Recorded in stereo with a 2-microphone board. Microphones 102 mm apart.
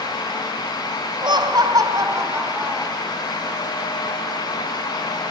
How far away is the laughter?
About 1.7 m.